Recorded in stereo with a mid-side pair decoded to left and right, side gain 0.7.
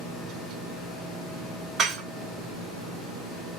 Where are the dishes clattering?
35° right, 1.8 m.